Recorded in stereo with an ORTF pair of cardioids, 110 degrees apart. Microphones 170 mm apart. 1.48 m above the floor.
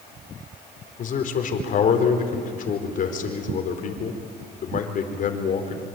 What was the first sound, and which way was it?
A man speaking, 50° left.